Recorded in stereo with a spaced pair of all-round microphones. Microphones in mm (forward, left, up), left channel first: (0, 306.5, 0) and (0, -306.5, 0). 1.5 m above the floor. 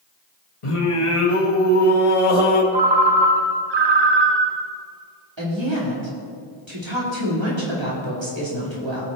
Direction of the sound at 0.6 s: 60° left (ahead or behind).